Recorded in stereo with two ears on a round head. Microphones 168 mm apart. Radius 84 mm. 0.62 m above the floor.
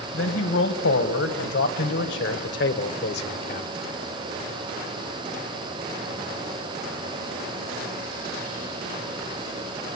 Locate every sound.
0.1 s a man speaking: 75° left (ahead or behind), 4 m; by 3.7 s 55° left (ahead or behind), 2 m